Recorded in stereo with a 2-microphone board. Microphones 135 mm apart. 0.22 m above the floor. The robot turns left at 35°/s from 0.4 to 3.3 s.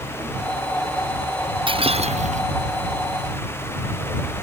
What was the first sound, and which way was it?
Breaking glass, 40° right (ahead or behind).